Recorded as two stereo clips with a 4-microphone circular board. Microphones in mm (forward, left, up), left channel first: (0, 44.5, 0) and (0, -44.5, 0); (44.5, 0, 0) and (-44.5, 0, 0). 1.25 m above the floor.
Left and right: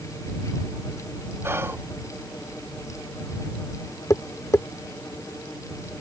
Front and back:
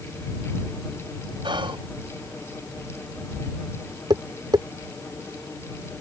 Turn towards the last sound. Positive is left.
turn(degrees=145)